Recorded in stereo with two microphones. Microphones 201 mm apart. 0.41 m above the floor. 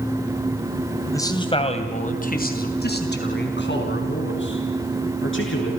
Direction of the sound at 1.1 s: 15° left (ahead or behind).